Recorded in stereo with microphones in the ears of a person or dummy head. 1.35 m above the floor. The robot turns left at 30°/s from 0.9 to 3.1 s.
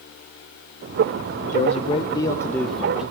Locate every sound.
1.4 s a man speaking: 45° left, 0.7 m; by 3.0 s 5° right, 0.7 m